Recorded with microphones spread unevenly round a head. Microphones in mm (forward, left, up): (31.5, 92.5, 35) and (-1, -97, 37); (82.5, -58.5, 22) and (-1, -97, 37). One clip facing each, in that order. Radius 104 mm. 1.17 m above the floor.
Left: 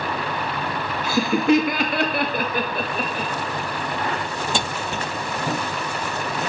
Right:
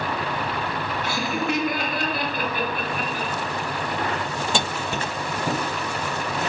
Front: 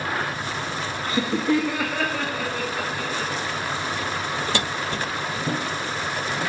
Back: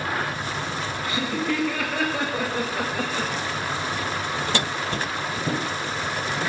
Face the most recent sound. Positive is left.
turn(degrees=150)